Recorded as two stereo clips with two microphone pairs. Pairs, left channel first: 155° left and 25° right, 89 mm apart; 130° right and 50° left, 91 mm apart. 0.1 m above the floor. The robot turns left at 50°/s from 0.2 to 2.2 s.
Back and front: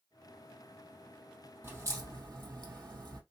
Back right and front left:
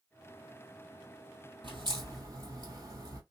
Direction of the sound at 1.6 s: 35° left.